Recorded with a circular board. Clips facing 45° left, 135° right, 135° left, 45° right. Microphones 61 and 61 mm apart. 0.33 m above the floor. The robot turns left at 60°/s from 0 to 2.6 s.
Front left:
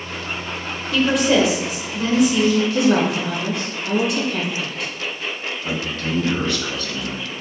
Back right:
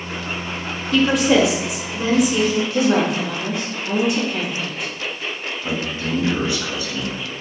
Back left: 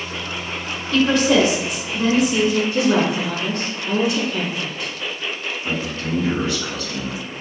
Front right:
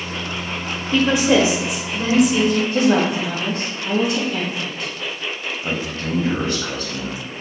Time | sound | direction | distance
0.9 | a woman speaking | 35° right | 1.0 m
2.7 | a woman speaking | 50° right | 1.7 m
5.6 | a man speaking | 70° right | 1.3 m